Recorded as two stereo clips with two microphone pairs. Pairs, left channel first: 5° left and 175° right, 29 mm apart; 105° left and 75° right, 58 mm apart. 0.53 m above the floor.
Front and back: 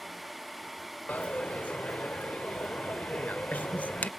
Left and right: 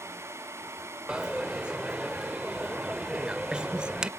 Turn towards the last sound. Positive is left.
turn(degrees=5)